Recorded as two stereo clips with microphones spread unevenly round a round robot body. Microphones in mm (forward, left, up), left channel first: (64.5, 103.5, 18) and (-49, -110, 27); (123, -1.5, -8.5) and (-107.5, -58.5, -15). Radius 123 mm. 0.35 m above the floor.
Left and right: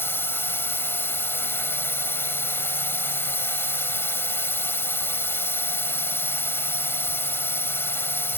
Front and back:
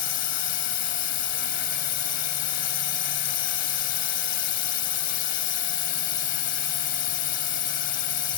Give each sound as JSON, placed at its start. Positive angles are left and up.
{"t": 0.0, "sound": "a drone", "azimuth_deg": -15}